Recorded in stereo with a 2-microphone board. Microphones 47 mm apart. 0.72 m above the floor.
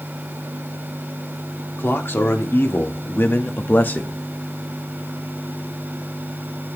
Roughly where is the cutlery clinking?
No cutlery clinking in this recording.